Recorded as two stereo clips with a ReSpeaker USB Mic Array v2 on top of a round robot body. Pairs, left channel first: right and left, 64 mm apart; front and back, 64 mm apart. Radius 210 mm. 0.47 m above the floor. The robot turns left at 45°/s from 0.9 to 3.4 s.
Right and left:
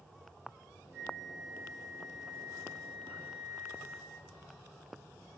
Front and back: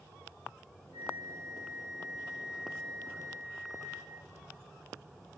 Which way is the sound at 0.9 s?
150° left.